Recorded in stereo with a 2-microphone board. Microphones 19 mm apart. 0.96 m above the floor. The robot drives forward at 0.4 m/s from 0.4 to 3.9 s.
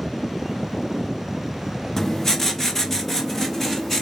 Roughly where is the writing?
Centre.